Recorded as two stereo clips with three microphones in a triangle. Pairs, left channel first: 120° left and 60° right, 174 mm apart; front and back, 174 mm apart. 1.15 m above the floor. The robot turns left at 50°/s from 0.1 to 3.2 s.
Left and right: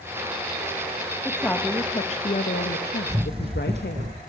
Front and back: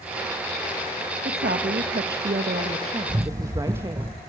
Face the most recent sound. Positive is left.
turn(degrees=-100)